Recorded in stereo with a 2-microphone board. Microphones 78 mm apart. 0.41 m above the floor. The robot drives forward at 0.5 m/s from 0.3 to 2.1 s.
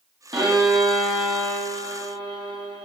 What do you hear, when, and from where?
0.3 s a violin: 65° right (ahead or behind), 7 m; by 2.9 s 70° right (ahead or behind), 6.5 m